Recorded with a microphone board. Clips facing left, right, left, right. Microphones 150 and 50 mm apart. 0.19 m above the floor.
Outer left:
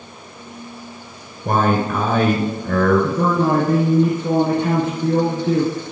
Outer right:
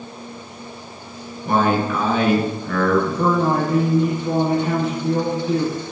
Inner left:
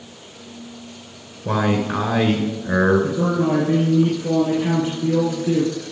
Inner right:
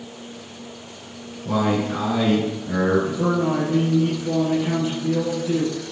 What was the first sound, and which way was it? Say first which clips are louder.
A man speaking: even, inner left 1 dB; 50° left (ahead or behind).